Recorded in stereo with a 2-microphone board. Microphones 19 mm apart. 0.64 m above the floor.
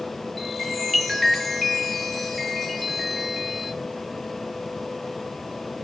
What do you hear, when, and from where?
0.4 s a chime: 5° left (ahead or behind), 5 m